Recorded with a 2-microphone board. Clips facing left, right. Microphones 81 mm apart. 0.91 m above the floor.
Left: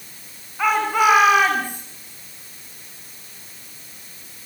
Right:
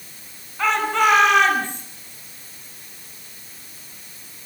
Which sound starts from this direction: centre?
A shout, at 0.6 s.